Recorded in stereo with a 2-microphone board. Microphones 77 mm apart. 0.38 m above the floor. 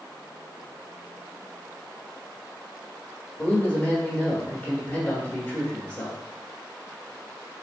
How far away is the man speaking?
About 1.1 m.